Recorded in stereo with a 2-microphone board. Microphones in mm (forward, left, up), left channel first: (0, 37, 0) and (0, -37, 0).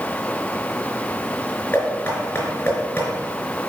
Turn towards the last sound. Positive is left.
turn(degrees=25)  # may be behind; listen again after turning